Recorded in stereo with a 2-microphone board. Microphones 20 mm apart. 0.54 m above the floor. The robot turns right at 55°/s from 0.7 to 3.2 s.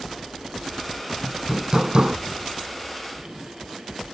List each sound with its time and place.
1.2 s hammering: 175° right; by 2.2 s 125° right